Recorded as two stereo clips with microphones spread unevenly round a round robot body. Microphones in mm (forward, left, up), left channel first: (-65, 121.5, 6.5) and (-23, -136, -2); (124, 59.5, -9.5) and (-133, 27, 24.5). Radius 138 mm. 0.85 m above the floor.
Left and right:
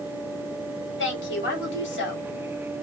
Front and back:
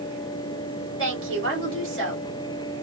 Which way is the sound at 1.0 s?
145° left.